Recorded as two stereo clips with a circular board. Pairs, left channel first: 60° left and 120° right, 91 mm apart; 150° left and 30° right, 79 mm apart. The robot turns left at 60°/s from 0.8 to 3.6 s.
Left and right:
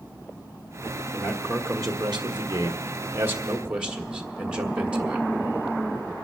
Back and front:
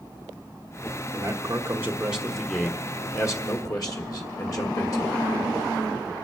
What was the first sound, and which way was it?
A man speaking, 45° right.